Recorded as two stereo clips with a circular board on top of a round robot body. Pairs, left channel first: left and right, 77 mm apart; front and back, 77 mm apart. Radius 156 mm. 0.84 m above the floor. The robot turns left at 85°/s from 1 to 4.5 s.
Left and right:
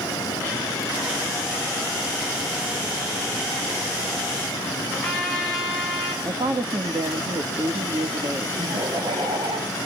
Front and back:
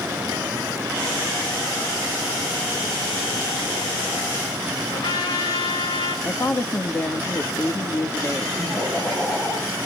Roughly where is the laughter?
Right.